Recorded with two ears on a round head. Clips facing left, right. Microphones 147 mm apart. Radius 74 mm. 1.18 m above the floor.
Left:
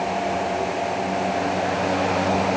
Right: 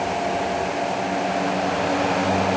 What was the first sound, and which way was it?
Only background noise.